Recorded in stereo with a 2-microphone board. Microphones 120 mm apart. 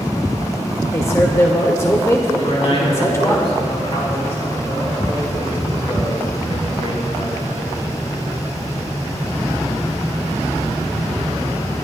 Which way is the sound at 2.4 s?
55° left (ahead or behind).